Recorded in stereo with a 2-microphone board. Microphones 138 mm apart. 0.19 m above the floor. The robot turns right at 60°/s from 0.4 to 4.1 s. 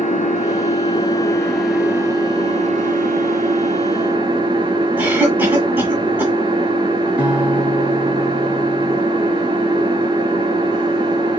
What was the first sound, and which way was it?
An engine running, 105° left.